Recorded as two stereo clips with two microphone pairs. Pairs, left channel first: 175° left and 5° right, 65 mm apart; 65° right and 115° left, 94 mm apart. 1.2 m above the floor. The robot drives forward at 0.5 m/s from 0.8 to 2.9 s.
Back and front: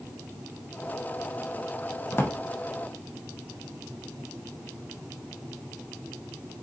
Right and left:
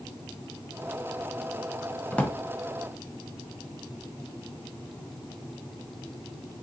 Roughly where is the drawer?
Behind right.